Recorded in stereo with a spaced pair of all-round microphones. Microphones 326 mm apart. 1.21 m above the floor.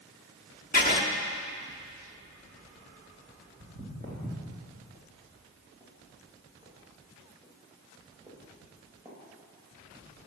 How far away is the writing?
About 0.8 m.